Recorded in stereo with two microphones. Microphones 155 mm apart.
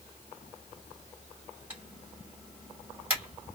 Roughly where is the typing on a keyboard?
Centre.